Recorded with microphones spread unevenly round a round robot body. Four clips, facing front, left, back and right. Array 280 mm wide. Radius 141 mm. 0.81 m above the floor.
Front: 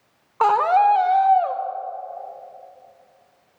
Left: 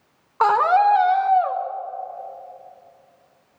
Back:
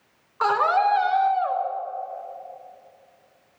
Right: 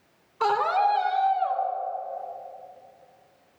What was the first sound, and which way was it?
A scream, 50° left.